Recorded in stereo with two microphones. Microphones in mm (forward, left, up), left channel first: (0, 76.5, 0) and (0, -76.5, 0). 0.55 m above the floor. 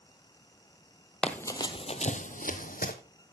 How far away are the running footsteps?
About 0.9 m.